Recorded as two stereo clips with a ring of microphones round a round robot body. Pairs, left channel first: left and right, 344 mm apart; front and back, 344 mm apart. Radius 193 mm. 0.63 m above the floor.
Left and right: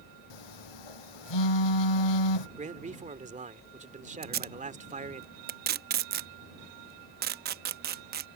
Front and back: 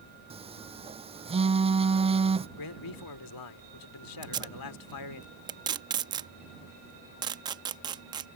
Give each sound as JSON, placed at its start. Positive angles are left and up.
{"t": 0.3, "sound": "a phone buzzing", "azimuth_deg": 105}
{"t": 2.6, "sound": "a man speaking", "azimuth_deg": -20}
{"t": 4.2, "sound": "tape being pulled", "azimuth_deg": -115}